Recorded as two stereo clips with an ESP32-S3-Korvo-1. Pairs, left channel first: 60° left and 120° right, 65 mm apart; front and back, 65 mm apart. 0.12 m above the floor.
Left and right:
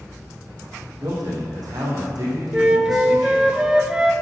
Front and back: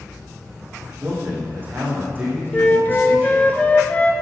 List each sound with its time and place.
1.0 s a man speaking: 120° right, 6 m
2.5 s a flute: 50° right, 1.0 m